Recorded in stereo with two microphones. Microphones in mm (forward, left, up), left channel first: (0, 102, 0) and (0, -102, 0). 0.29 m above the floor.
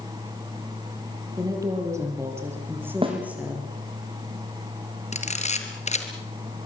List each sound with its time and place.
1.4 s a woman speaking: 15° right (ahead or behind), 8 m; by 3.7 s 5° right (ahead or behind), 6.5 m
3.0 s a snare drum: 25° right (ahead or behind), 5 m
5.1 s a camera shutter: 35° left (ahead or behind), 3 m